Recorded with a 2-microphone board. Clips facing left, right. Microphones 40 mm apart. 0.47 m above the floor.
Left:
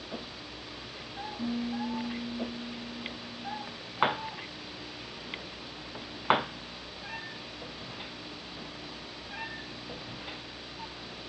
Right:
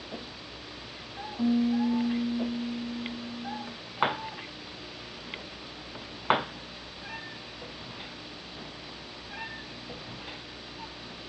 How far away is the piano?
About 3 m.